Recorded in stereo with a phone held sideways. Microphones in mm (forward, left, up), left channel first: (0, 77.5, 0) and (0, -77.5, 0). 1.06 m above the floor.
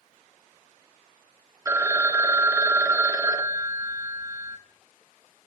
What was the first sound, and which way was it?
A phone ringing, 20° right (ahead or behind).